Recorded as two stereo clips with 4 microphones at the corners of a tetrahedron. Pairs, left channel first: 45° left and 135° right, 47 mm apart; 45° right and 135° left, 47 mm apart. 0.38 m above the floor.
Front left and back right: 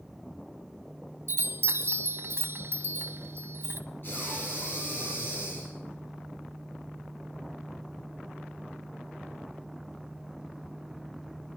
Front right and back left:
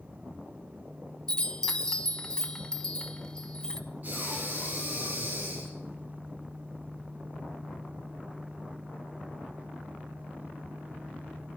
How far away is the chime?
About 1.0 m.